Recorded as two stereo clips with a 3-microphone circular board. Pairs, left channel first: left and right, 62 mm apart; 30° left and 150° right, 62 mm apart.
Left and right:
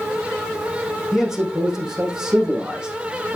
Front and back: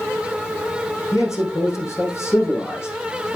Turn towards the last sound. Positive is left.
turn(degrees=-15)